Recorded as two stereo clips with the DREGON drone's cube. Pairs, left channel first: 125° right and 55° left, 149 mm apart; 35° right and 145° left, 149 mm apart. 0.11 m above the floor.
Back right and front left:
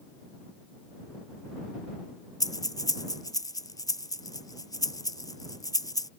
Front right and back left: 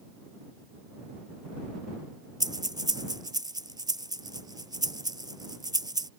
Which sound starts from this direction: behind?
Breathing, at 2.4 s.